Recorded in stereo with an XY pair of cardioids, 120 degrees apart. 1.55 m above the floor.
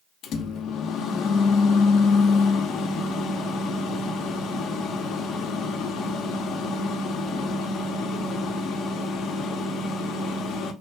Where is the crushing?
No crushing in this recording.